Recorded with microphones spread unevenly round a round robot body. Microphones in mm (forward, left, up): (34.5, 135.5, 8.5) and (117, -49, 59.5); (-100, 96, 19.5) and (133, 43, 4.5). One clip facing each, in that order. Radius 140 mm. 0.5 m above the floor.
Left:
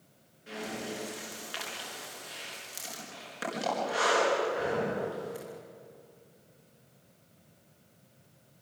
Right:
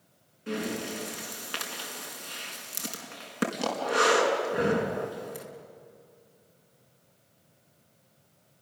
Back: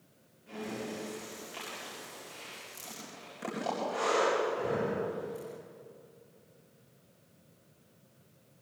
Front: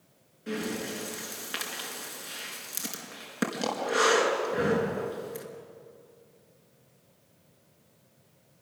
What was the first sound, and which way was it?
Breathing, 40° right.